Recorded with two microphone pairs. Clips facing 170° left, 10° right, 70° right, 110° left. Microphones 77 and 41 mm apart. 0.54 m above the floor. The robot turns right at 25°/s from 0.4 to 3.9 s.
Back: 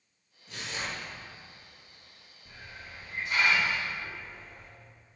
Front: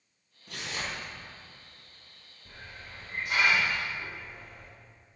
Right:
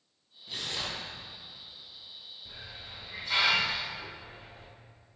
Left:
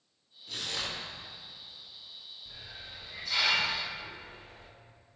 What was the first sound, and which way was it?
Tearing paper, 5° left.